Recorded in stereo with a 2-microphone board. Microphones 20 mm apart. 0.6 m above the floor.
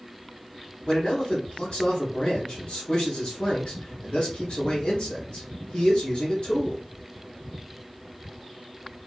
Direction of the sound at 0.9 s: 50° left (ahead or behind).